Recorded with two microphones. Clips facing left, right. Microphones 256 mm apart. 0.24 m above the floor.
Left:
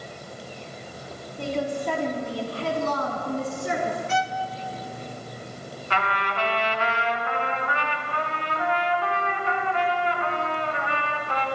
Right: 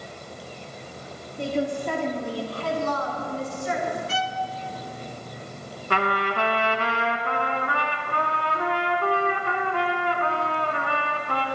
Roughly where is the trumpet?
Right.